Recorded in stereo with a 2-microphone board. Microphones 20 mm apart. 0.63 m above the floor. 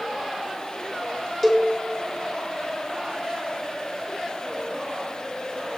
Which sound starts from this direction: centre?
A cowbell, at 1.4 s.